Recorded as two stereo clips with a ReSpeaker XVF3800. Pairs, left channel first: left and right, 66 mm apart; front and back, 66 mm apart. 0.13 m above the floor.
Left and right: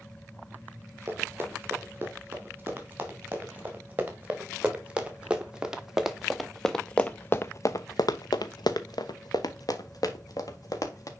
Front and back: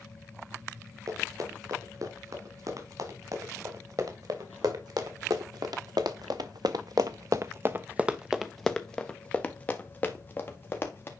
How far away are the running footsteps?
About 4 m.